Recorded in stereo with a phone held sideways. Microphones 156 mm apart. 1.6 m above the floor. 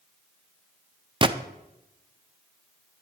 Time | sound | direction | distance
1.2 | a gunshot | 30° right (ahead or behind) | 0.5 m